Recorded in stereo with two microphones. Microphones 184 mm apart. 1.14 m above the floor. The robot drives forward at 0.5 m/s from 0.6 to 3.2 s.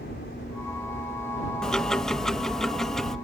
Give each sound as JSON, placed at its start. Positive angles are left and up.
{"t": 0.0, "sound": "a helicopter", "side_deg": 65}
{"t": 1.6, "sound": "ticking", "side_deg": 5}